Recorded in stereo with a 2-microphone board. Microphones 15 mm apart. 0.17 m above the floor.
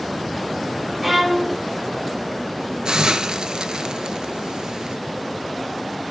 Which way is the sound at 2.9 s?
65° right (ahead or behind).